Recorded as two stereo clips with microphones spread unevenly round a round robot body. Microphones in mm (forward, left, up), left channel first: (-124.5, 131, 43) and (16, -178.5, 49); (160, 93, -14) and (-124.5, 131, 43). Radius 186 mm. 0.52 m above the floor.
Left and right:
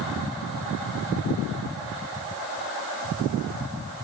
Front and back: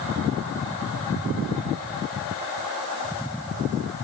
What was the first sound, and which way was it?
Only background noise.